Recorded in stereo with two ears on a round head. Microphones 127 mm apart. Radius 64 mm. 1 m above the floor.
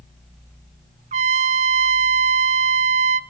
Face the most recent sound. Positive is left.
turn(degrees=-50)  # may be behind; listen again after turning